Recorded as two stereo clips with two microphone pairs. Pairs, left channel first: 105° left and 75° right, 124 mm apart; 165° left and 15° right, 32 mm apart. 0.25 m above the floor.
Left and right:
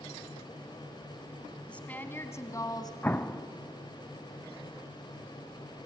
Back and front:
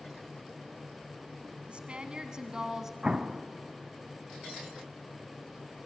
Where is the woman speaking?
25° left, 2 m; by 2.9 s 55° left, 2 m.